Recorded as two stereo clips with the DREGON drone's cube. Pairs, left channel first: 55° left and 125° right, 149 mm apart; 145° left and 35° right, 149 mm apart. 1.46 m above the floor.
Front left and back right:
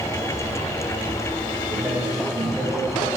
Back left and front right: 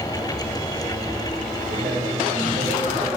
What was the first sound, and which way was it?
A man speaking, 40° right.